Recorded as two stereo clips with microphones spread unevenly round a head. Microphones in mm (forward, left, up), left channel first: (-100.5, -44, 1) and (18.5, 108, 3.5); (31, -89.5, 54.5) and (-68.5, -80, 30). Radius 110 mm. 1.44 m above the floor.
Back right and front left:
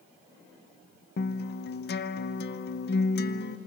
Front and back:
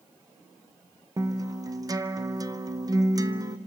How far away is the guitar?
About 0.7 m.